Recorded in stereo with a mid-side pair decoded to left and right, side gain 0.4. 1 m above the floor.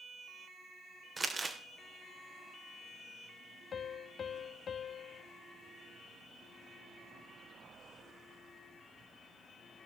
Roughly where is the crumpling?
Ahead right.